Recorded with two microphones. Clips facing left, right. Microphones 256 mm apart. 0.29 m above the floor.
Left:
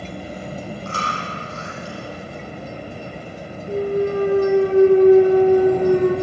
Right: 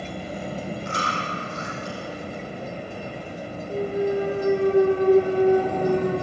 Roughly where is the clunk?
Left.